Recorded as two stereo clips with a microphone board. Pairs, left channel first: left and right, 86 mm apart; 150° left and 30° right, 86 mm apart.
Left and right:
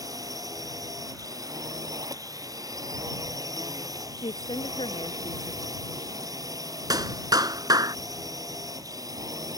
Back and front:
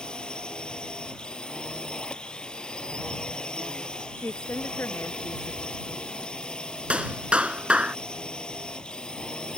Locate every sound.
0.0 s a drone: 130° right
4.2 s a woman speaking: 85° left
6.9 s a clap: 105° right